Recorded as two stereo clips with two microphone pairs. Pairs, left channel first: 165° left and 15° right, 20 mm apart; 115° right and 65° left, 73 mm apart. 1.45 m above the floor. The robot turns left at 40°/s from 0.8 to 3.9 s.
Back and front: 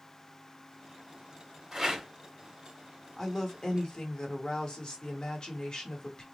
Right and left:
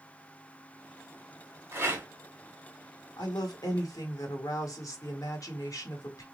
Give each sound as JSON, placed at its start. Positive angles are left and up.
{"t": 1.7, "sound": "a rattle", "azimuth_deg": 40, "distance_m": 1.3}
{"t": 3.2, "sound": "a woman speaking", "azimuth_deg": -125, "distance_m": 1.2}